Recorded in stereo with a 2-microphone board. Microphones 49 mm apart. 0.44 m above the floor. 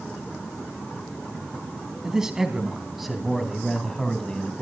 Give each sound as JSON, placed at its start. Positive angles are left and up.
{"t": 2.0, "sound": "a man speaking", "side_deg": -15, "distance_m": 3.5}